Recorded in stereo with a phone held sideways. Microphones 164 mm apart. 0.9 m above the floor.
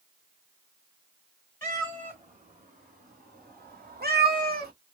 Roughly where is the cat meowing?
Right.